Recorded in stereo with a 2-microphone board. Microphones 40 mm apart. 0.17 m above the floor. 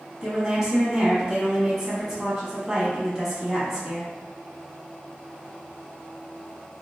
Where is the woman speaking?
15° right (ahead or behind), 1.1 m.